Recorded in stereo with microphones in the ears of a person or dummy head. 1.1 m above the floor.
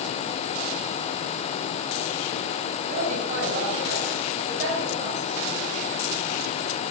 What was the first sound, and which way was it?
A woman speaking, 40° right (ahead or behind).